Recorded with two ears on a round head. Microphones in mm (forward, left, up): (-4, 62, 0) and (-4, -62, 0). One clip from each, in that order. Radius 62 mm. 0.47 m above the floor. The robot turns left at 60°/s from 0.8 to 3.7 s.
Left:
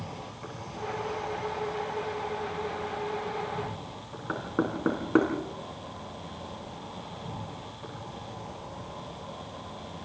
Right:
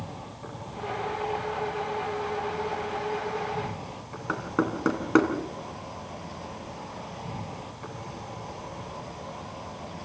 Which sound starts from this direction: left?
An insect, at 0.0 s.